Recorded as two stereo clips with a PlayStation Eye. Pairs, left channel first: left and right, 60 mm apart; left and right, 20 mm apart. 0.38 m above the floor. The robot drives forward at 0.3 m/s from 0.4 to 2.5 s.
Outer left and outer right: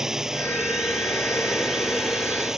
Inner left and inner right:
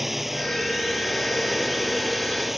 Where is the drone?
10° right (ahead or behind).